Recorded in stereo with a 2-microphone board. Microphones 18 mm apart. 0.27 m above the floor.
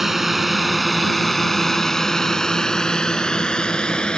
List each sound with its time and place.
0.0 s a drone: 10° right (ahead or behind); by 4.2 s 55° left (ahead or behind)